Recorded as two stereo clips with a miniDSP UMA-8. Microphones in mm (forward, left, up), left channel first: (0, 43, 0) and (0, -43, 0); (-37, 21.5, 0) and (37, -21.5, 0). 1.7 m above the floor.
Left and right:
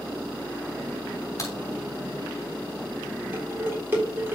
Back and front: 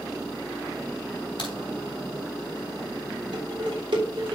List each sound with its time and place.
1.4 s a crack: 140° left, 3.5 m
3.3 s dishes clattering: 25° right, 3.5 m